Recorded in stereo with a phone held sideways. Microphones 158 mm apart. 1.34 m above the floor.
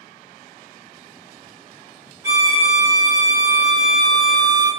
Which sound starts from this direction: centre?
A violin, at 2.2 s.